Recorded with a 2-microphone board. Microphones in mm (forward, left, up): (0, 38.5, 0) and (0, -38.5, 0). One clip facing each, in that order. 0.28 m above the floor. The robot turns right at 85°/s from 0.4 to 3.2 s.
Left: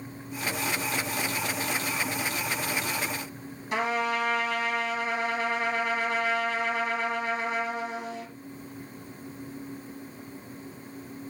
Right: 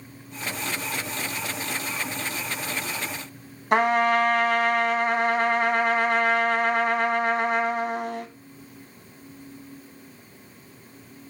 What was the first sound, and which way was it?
A trumpet, 55° right (ahead or behind).